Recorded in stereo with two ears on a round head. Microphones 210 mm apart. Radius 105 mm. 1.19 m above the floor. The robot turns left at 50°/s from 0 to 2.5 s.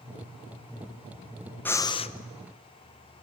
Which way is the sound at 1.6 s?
10° left (ahead or behind).